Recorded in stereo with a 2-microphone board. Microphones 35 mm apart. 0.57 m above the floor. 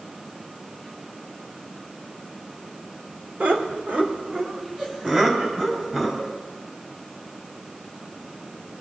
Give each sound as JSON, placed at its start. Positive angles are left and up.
{"t": 3.4, "sound": "laughter", "side_deg": -55, "distance_m": 1.4}